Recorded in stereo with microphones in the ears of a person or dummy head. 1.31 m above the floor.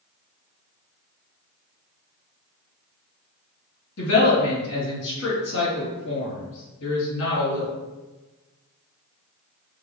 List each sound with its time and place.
4.0 s a woman speaking: 70° left (ahead or behind), 1.9 m